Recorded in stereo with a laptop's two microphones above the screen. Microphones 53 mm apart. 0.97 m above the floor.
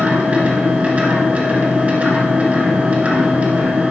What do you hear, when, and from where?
0.0 s a machine running: 25° right (ahead or behind), 1.8 m